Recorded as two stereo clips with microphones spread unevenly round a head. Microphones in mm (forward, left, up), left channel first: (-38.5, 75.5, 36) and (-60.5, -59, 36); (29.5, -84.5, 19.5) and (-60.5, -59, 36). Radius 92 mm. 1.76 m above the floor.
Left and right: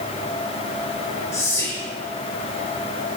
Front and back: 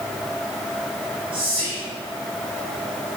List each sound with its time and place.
1.3 s whispering: 145° left, 1.1 m